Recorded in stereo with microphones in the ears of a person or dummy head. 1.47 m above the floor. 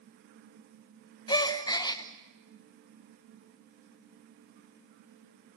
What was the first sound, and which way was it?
A gasp, 20° left (ahead or behind).